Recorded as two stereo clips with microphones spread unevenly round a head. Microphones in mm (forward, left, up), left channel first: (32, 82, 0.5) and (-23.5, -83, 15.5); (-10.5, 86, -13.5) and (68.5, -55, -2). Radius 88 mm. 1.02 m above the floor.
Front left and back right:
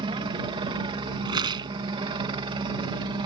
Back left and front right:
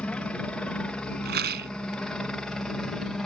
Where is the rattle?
45° right.